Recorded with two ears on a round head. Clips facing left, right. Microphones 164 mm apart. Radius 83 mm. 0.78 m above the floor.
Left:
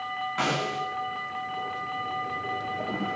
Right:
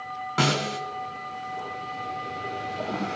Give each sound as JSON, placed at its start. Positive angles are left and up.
{"t": 0.4, "sound": "a snare drum", "side_deg": -55, "distance_m": 3.0}